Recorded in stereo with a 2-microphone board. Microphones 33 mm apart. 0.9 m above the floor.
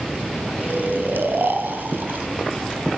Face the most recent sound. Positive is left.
turn(degrees=-80)